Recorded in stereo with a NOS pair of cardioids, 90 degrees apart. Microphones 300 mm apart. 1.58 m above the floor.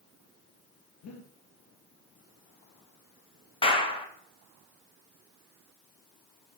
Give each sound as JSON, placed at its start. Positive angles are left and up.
{"t": 1.0, "sound": "breathing", "azimuth_deg": 65, "distance_m": 0.7}
{"t": 3.6, "sound": "a clap", "azimuth_deg": 20, "distance_m": 0.7}